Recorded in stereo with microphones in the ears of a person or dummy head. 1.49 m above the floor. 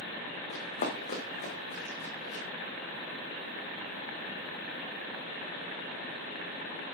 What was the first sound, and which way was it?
Running footsteps, 35° left (ahead or behind).